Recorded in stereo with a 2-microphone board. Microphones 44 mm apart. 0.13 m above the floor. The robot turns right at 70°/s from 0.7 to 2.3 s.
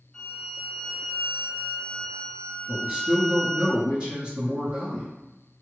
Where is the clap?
I don't hear a clap.